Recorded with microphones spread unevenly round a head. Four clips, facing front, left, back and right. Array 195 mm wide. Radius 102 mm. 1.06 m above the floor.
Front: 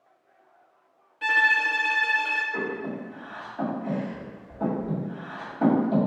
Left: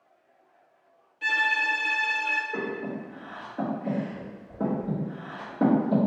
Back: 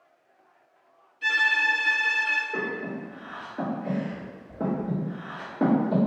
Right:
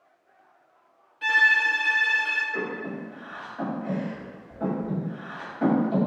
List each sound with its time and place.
1.2 s a violin: 10° right, 0.5 m
2.5 s breathing: 130° left, 1.3 m